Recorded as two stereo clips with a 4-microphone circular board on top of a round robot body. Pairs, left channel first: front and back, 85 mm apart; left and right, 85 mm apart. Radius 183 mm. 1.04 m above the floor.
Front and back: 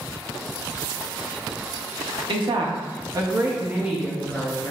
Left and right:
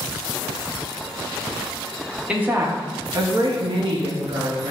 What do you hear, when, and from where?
2.3 s a woman speaking: 165° right, 0.9 m; by 4.7 s 80° right, 1.0 m